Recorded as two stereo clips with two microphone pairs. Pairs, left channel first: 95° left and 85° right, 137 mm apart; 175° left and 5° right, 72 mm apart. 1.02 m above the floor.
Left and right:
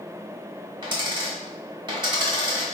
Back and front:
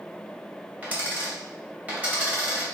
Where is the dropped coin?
65° right, 0.9 m.